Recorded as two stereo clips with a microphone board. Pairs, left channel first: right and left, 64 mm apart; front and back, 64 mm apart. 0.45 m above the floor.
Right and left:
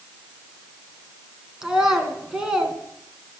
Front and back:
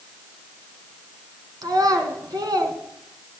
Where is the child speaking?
170° left, 3 m.